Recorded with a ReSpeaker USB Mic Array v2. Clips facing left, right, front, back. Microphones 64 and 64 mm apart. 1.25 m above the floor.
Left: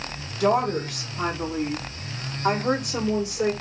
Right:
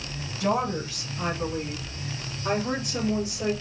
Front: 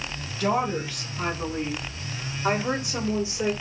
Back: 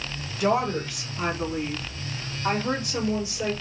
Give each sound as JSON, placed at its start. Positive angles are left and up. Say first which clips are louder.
{"t": 0.4, "sound": "a woman speaking", "louder": "left 4 dB, back 1 dB", "azimuth_deg": 105, "distance_m": 3.5}